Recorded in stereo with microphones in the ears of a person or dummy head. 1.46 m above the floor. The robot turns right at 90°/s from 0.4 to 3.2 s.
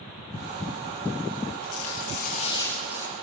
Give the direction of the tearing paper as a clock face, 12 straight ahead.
10 o'clock.